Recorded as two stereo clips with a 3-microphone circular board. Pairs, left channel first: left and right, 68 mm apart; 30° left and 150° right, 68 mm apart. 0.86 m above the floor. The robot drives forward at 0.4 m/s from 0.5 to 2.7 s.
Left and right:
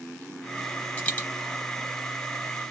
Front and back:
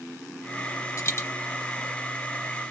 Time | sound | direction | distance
1.0 | a dropped coin | 30° left | 0.8 m